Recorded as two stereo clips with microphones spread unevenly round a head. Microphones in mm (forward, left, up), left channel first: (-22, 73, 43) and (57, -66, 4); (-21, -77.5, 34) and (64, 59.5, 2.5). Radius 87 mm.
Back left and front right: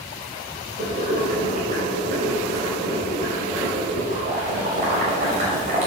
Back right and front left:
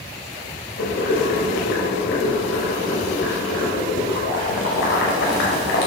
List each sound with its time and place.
0.8 s boiling: 110° right, 5 m